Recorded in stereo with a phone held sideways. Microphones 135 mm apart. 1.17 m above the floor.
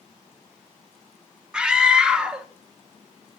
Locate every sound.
1.5 s a scream: 5° right (ahead or behind), 1.1 m